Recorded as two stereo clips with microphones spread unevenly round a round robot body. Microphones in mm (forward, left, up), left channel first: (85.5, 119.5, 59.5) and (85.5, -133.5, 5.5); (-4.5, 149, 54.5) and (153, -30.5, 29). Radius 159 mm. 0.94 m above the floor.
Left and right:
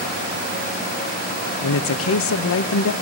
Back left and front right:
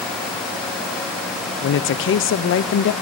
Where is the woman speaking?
115° left, 0.5 m.